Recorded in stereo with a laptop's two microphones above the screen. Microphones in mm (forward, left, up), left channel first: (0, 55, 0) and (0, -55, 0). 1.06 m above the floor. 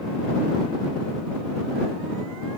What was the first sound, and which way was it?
Only background noise.